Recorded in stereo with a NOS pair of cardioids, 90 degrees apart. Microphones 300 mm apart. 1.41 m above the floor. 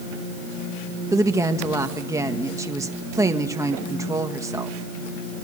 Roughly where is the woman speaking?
Ahead.